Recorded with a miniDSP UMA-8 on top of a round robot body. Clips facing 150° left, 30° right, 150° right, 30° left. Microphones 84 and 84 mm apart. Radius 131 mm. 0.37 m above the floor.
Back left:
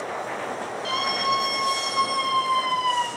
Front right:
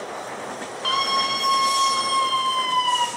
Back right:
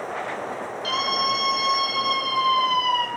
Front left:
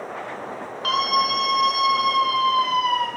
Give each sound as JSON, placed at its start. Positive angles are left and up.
{"t": 0.8, "sound": "a scream", "azimuth_deg": -5, "distance_m": 7.0}